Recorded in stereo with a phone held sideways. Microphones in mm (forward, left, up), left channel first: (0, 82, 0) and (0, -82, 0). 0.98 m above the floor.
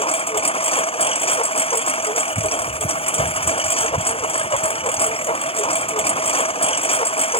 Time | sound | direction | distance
0.0 | a lawn mower | 35° left (ahead or behind) | ?